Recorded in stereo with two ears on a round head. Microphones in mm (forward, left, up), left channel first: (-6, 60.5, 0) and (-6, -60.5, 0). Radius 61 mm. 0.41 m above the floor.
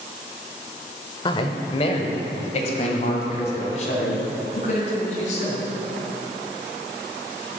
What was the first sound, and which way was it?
A man speaking, 35° left (ahead or behind).